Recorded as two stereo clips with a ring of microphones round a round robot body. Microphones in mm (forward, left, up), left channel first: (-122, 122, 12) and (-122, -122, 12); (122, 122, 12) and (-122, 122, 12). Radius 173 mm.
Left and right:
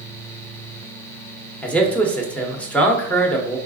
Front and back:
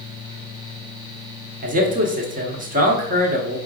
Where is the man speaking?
170° left, 0.9 m.